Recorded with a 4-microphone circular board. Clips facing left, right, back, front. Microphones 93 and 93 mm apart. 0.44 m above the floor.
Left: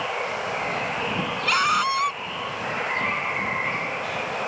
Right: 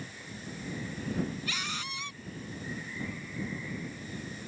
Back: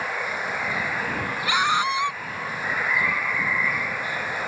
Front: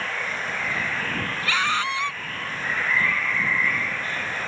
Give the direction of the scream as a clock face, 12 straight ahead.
8 o'clock.